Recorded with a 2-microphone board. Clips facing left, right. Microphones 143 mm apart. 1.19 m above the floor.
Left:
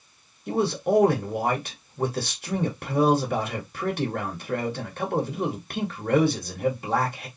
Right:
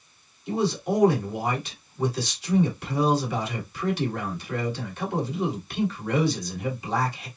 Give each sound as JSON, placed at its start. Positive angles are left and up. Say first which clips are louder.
{"t": 0.5, "sound": "a man speaking", "louder": "left 2 dB", "side_deg": 55, "distance_m": 2.0}